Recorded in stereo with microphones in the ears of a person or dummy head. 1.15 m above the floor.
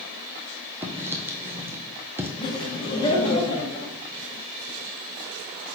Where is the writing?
15° right (ahead or behind), 0.8 m.